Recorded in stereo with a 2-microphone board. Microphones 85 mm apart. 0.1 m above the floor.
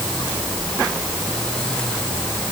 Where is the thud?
I don't hear a thud.